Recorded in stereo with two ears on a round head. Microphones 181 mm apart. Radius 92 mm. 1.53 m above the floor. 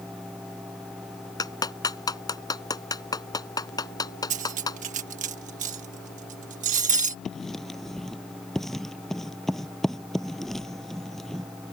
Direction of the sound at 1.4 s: 20° left (ahead or behind).